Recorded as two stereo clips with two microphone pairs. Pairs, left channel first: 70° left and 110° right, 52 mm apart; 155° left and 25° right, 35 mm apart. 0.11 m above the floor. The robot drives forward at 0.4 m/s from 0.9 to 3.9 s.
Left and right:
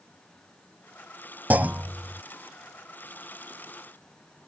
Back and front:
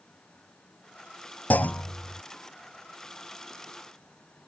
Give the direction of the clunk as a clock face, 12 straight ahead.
6 o'clock.